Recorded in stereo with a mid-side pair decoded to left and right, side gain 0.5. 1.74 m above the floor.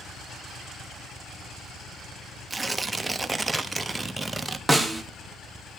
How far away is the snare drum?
About 1.5 m.